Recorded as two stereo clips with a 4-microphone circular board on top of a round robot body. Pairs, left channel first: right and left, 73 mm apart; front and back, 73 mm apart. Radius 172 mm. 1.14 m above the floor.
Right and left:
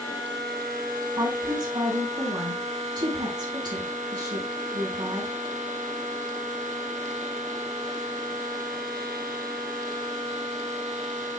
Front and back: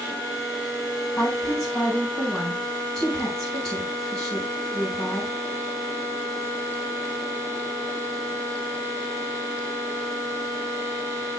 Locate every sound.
1.2 s a woman speaking: 85° left, 4.5 m